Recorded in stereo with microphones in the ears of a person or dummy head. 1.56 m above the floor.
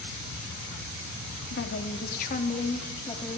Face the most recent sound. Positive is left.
turn(degrees=25)  # may be behind; listen again after turning